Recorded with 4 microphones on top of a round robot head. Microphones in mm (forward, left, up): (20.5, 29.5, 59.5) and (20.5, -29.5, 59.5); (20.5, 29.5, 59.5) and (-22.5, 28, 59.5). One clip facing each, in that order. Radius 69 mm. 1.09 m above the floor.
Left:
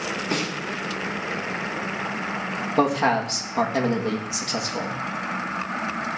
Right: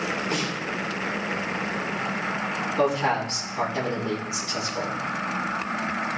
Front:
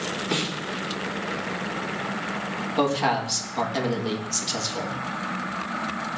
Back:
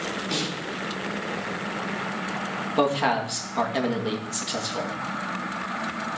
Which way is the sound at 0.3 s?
70° left.